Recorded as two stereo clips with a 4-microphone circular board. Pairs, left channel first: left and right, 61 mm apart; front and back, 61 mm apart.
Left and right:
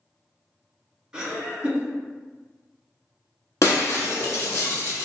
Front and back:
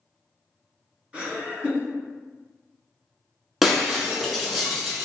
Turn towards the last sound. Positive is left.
turn(degrees=90)